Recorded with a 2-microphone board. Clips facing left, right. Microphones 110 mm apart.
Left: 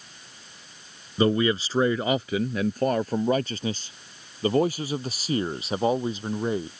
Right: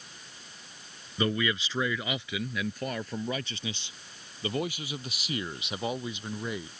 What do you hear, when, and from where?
1.2 s a man speaking: 35° left (ahead or behind)